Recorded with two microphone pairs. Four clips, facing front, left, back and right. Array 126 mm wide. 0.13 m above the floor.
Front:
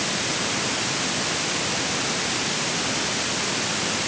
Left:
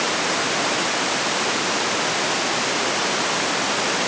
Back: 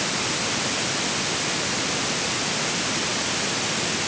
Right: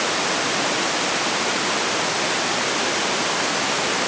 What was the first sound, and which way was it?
Only background noise.